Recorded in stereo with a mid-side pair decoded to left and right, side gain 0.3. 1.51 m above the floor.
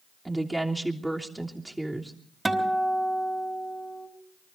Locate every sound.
0.2 s a woman speaking: 15° right, 3 m
2.5 s a guitar: 20° right, 4.5 m